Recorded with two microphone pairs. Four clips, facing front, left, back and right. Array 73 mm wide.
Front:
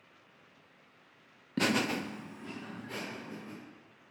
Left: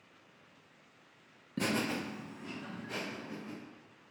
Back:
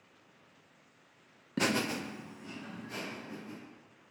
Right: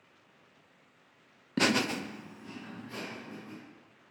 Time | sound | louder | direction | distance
1.6 | laughter | right 5 dB, front 1 dB | 100° right | 0.6 m